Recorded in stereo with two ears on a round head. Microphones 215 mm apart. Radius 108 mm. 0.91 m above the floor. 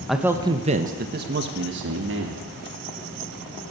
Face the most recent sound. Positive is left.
turn(degrees=-55)  # may be behind; listen again after turning